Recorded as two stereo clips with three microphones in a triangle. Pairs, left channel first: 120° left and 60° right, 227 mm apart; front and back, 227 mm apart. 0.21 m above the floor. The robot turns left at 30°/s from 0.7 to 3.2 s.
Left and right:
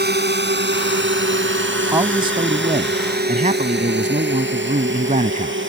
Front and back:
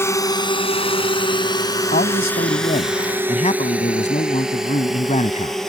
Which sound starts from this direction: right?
A drone, at 0.0 s.